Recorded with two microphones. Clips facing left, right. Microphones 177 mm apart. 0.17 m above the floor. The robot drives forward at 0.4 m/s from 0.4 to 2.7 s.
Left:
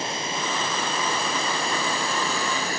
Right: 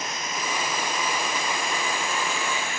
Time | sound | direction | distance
0.0 | running water | 30° left (ahead or behind) | 3.5 m